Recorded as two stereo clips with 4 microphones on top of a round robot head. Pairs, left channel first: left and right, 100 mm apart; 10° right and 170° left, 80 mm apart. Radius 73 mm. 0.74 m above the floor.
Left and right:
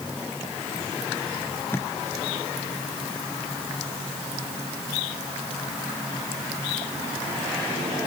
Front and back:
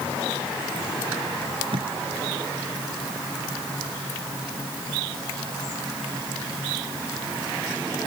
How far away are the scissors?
No scissors in this recording.